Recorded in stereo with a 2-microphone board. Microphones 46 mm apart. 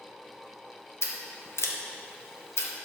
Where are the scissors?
65° left (ahead or behind), 1.0 m.